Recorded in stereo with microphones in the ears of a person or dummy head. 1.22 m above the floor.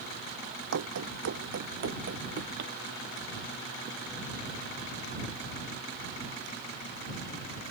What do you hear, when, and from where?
0.7 s running footsteps: 65° right (ahead or behind); by 2.7 s 60° right (ahead or behind)